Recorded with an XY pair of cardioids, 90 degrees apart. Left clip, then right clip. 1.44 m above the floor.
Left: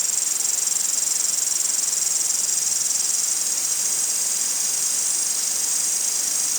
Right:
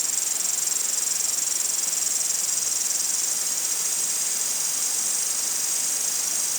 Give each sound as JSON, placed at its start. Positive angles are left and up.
{"t": 0.0, "sound": "an insect", "azimuth_deg": 20}